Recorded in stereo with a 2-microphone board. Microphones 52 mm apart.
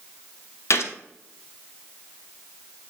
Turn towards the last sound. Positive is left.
turn(degrees=60)  # may be behind; listen again after turning